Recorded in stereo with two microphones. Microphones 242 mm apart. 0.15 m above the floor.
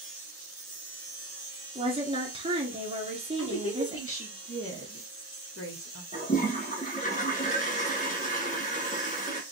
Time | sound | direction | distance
1.8 | a woman speaking | 20° right (ahead or behind) | 1.9 m
3.4 | a woman speaking | 65° left (ahead or behind) | 2.5 m
6.1 | a toilet flushing | 35° left (ahead or behind) | 1.5 m